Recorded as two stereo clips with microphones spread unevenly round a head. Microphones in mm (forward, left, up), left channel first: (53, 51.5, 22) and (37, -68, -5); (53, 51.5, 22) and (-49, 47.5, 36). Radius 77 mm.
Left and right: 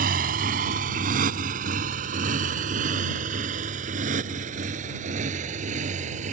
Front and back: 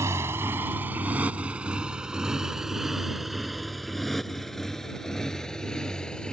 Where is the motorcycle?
105° right; by 6.3 s 85° right.